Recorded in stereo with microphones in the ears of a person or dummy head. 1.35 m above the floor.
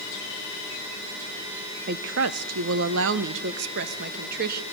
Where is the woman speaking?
50° right (ahead or behind), 0.7 m; by 4.6 s 55° right (ahead or behind), 2 m.